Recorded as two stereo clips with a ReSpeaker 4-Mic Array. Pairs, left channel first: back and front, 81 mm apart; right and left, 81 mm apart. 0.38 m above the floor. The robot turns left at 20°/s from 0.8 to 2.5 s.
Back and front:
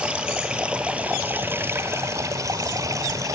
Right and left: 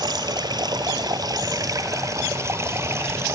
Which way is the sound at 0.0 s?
75° left.